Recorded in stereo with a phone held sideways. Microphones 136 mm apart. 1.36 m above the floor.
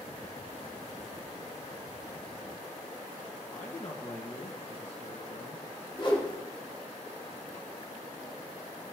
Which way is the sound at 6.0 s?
35° left (ahead or behind).